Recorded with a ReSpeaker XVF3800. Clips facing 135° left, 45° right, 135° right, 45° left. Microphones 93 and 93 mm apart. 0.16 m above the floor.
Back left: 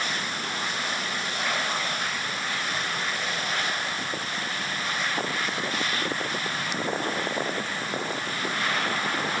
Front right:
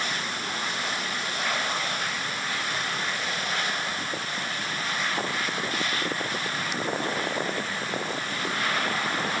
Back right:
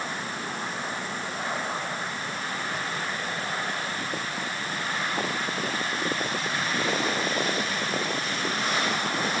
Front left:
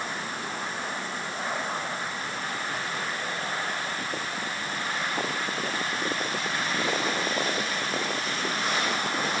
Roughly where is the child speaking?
I don't hear a child speaking.